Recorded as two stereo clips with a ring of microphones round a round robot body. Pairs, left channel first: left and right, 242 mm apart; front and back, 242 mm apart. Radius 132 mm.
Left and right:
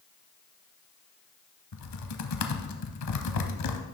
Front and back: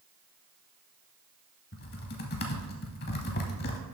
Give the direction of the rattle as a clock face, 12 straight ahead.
I don't hear a rattle.